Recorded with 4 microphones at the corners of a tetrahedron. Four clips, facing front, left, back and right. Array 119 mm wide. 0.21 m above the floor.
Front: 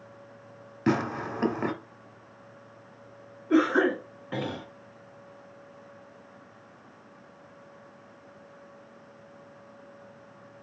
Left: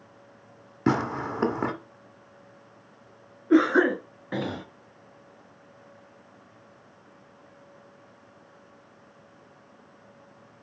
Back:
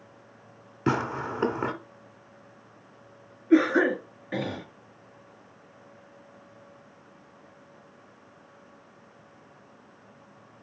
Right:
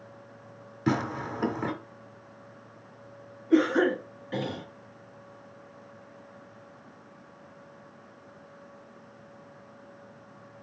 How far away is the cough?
About 3 m.